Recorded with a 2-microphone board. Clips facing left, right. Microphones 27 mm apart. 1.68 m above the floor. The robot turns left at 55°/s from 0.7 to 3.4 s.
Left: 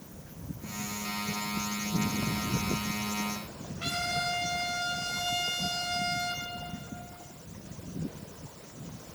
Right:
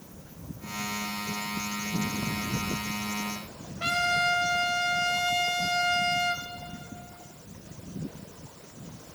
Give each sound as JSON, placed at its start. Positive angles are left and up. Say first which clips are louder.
{"t": 3.8, "sound": "a trumpet", "louder": "right 6 dB", "side_deg": -70, "distance_m": 2.5}